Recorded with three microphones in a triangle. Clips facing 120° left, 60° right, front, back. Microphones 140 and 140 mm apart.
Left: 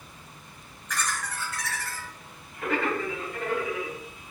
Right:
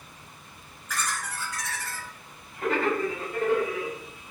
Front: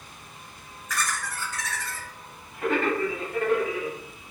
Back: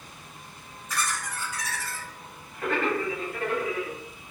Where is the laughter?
140° right, 1.3 m; by 4.0 s 25° right, 1.6 m.